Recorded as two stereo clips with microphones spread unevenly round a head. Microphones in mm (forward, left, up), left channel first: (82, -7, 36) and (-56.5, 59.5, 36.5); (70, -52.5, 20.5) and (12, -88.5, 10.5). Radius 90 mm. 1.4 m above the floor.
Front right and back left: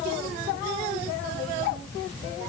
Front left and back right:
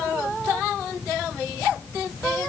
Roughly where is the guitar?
I don't hear a guitar.